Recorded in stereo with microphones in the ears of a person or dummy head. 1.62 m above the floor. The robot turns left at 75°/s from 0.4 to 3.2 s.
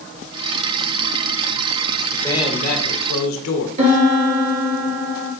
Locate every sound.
2.1 s a man speaking: 175° left, 1.1 m; by 3.7 s 95° left, 1.1 m
3.8 s a piano: 35° right (ahead or behind), 1.8 m